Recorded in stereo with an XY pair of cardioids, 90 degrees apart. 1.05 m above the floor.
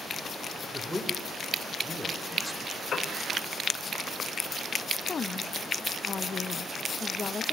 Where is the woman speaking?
45° left, 1.1 m.